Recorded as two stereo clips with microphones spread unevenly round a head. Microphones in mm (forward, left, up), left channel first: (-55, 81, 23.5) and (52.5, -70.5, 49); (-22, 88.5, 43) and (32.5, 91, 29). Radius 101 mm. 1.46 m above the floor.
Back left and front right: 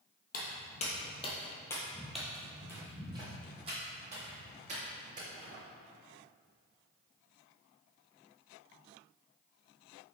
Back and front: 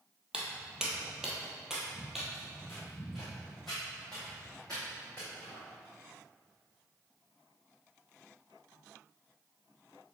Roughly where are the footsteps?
Left.